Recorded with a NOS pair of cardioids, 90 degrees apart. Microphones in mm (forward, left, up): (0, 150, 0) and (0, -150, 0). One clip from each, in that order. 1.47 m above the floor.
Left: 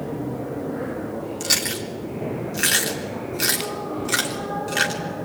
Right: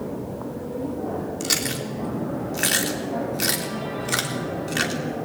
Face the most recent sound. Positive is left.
turn(degrees=0)